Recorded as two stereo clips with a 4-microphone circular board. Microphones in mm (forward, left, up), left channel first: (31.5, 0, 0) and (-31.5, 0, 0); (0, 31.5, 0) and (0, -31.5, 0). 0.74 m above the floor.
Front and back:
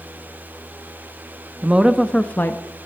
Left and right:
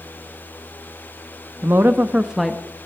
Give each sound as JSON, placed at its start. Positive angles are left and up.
{"t": 1.6, "sound": "a woman speaking", "azimuth_deg": -120, "distance_m": 0.9}